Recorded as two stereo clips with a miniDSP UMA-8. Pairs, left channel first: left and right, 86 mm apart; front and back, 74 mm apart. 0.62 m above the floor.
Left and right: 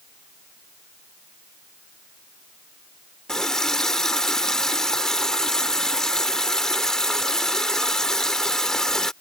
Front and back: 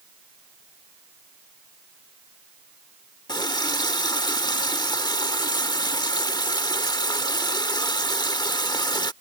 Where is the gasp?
I don't hear a gasp.